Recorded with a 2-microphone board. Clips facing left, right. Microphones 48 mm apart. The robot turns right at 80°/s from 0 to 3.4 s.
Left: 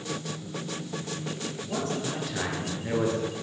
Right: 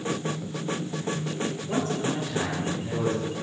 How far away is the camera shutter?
No camera shutter in this recording.